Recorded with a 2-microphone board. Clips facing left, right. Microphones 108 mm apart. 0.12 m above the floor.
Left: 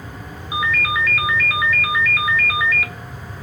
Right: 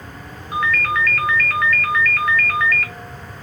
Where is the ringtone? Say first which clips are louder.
Right 1 dB; 5° left (ahead or behind), 0.7 m.